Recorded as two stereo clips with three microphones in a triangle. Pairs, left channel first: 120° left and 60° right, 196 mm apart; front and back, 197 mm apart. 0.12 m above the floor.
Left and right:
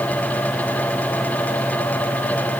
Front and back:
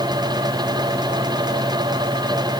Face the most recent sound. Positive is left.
No sound to turn to.